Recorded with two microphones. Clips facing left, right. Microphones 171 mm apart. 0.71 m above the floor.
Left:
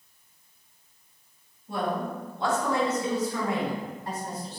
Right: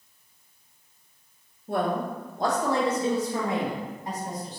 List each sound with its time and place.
1.7 s a woman speaking: 60° right (ahead or behind), 0.9 m; by 4.6 s 15° right (ahead or behind), 2 m